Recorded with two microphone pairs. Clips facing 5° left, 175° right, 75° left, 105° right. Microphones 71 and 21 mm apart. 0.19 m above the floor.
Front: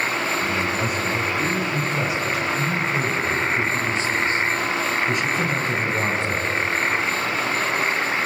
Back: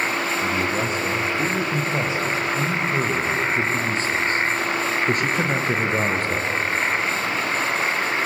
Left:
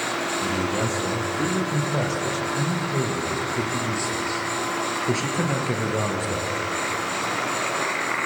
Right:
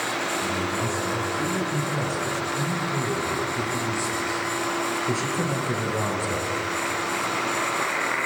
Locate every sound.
0.4 s a man speaking: 125° left, 6 m; by 6.5 s 155° left, 3 m